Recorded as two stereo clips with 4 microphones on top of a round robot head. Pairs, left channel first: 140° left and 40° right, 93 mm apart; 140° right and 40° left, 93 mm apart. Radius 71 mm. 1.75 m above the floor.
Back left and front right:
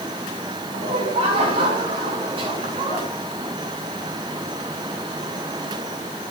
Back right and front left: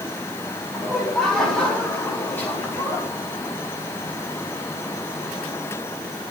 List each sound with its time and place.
0.7 s laughter: 50° right, 6.5 m; by 3.1 s 80° right, 5.5 m